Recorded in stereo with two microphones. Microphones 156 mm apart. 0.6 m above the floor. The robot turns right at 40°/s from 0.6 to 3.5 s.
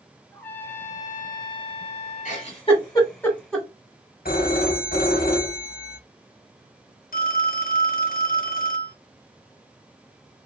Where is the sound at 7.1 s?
60° left (ahead or behind), 0.5 m.